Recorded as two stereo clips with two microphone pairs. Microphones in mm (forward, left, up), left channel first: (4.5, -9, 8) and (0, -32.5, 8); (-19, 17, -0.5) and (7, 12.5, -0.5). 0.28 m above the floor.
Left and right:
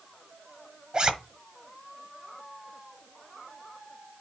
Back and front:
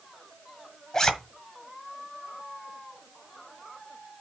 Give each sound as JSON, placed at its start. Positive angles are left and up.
{"t": 0.9, "sound": "a zipper", "azimuth_deg": -130, "distance_m": 1.3}